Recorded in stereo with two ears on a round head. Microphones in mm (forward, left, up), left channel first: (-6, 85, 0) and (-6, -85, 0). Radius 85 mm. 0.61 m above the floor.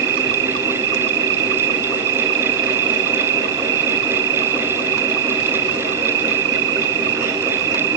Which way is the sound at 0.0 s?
65° right (ahead or behind).